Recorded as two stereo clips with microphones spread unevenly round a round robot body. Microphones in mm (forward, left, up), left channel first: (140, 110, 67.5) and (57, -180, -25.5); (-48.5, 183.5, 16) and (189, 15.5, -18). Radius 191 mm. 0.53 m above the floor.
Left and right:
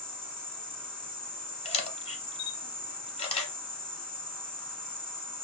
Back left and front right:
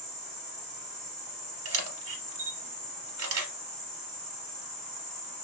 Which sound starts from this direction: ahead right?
An insect, at 0.0 s.